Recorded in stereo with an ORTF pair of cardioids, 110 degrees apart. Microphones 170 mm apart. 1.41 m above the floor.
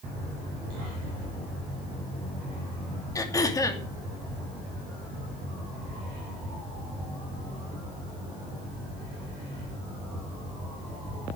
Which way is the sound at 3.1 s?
20° left.